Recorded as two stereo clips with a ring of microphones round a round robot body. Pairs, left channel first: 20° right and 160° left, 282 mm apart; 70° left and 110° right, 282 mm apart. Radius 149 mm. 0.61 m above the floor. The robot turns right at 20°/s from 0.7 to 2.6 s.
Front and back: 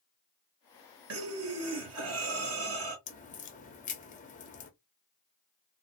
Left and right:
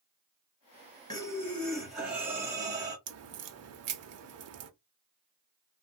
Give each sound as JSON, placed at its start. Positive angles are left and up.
{"t": 1.1, "sound": "breathing", "azimuth_deg": 140, "distance_m": 1.6}
{"t": 3.1, "sound": "a crack", "azimuth_deg": -85, "distance_m": 0.7}